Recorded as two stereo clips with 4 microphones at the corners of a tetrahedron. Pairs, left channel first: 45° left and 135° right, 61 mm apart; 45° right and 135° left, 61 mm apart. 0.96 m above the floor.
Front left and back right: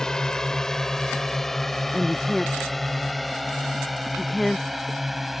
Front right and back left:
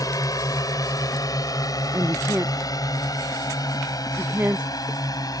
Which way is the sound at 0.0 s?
35° right.